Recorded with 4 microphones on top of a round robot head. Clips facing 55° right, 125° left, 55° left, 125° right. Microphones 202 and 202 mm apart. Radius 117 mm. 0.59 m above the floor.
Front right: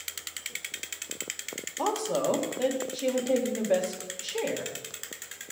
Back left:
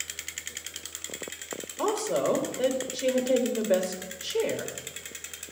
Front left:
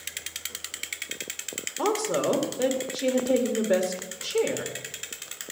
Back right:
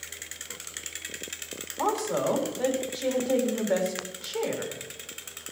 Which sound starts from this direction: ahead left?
A woman speaking, at 1.8 s.